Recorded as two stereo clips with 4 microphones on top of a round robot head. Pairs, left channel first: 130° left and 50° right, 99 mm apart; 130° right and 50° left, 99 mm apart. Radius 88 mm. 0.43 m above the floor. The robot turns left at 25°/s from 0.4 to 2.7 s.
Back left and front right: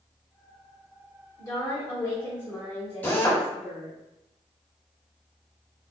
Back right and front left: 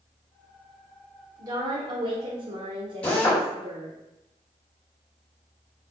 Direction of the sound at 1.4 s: 90° left.